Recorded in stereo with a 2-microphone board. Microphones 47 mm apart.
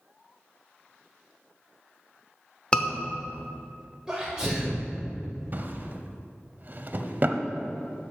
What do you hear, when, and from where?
2.7 s a scream: 20° left (ahead or behind), 0.8 m
4.1 s a sneeze: 15° right (ahead or behind), 1.1 m
5.5 s a drawer: 40° right (ahead or behind), 0.5 m